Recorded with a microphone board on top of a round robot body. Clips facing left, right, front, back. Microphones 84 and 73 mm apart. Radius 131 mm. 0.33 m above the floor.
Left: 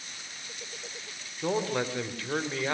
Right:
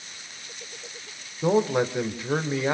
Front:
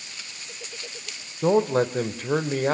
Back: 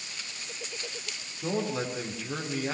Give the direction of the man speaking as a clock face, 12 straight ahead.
1 o'clock.